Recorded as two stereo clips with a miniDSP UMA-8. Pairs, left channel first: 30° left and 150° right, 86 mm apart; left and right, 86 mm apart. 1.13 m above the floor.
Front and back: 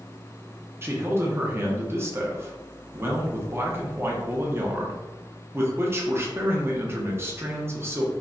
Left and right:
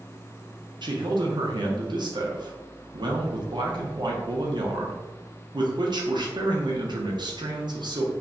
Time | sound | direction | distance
0.8 | a man speaking | 95° right | 0.7 m